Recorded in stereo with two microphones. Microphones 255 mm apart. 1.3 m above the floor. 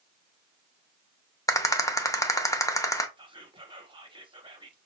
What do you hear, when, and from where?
1.5 s a rattle: 10° left (ahead or behind), 0.7 m
3.2 s whispering: 20° right (ahead or behind), 0.9 m